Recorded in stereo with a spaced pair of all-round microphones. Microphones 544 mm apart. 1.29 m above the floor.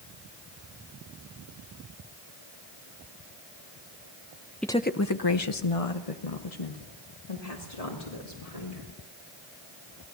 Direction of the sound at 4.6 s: Centre (ahead or behind).